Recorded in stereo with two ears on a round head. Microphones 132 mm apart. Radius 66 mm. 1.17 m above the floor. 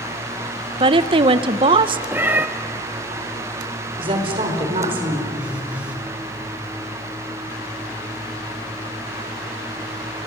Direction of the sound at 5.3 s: 10° right (ahead or behind).